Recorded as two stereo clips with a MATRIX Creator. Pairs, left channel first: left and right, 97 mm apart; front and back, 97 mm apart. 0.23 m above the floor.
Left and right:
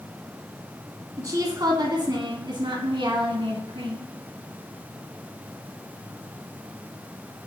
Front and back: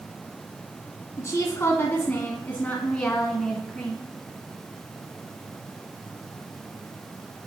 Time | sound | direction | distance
1.2 | a woman speaking | 45° right | 1.9 m